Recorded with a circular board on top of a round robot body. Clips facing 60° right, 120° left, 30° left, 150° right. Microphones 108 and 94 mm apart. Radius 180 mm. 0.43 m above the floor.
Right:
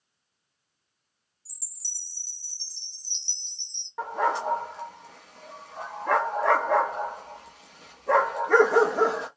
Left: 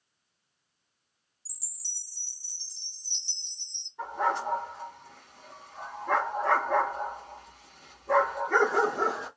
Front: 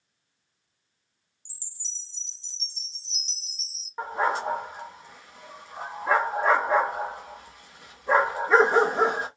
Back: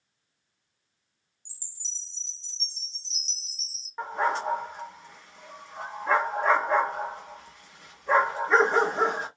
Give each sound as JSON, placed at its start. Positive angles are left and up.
{"t": 1.4, "sound": "a chime", "azimuth_deg": 40, "distance_m": 1.6}
{"t": 4.0, "sound": "a dog barking", "azimuth_deg": -50, "distance_m": 0.6}